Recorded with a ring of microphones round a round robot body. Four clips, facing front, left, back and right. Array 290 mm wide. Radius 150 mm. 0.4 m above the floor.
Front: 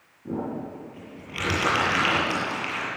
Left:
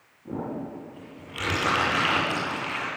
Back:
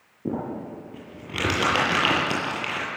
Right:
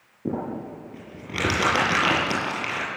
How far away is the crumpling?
About 9 m.